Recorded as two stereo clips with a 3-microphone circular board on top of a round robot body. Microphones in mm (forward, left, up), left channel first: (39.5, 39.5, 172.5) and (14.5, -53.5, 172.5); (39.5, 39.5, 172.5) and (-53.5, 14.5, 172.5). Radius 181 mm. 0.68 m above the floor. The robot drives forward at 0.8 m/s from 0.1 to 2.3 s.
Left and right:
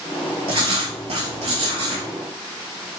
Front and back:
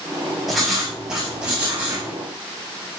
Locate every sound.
0.5 s writing: 75° right, 4 m; by 2.1 s 95° right, 3.5 m